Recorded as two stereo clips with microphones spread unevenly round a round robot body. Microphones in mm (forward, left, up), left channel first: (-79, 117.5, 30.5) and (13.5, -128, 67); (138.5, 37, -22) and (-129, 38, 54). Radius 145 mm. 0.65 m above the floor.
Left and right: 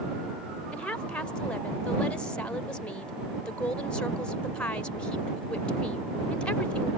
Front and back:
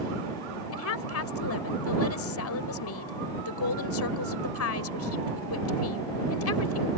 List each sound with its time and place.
0.7 s a woman speaking: 25° left